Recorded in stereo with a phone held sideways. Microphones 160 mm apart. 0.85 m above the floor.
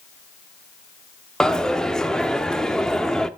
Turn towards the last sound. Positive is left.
turn(degrees=5)  # may be behind; listen again after turning